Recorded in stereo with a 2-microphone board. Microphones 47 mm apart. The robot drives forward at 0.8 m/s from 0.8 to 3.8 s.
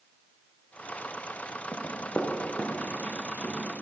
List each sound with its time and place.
1.7 s running footsteps: 60° left (ahead or behind), 1.5 m; by 3.7 s 20° left (ahead or behind), 4 m